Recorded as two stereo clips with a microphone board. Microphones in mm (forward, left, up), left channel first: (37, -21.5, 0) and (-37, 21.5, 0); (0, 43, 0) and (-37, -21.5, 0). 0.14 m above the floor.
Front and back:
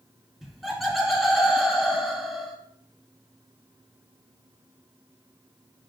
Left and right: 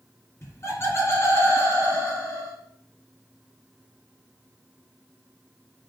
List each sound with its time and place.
0.4 s laughter: 60° left, 1.4 m